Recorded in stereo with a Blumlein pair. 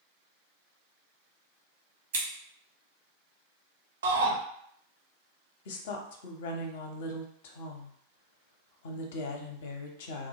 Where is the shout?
65° right, 0.7 m.